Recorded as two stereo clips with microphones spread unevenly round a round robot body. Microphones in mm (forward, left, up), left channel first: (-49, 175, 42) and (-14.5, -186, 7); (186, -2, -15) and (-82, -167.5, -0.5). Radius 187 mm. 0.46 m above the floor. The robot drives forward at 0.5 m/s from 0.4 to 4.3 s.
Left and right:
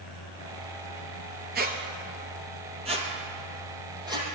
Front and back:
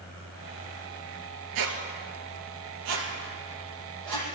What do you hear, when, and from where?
1.6 s a squeak: 150° right, 1.5 m; by 4.2 s 165° right, 2.5 m